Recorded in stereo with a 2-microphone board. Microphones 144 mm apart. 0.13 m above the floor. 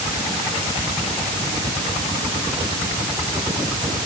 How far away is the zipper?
I don't hear a zipper.